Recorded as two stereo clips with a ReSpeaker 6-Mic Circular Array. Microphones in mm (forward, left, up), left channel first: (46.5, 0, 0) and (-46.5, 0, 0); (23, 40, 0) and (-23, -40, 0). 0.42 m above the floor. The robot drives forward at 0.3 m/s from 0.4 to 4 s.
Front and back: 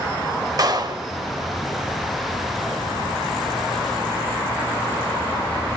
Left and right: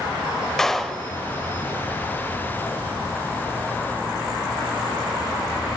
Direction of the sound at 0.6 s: 145° left.